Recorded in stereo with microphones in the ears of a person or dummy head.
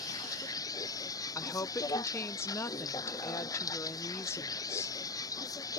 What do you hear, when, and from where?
0.0 s a vehicle: 20° left (ahead or behind)
1.4 s a woman speaking: 10° left (ahead or behind)